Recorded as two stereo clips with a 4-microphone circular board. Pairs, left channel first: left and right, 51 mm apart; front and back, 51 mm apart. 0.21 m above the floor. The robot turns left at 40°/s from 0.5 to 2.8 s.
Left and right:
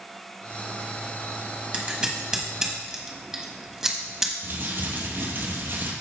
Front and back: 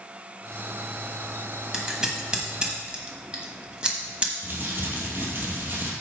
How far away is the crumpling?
About 1.8 m.